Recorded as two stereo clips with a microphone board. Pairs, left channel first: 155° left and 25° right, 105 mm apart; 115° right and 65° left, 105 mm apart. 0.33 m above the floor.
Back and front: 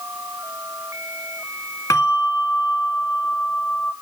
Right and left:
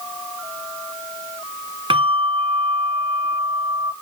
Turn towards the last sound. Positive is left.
turn(degrees=100)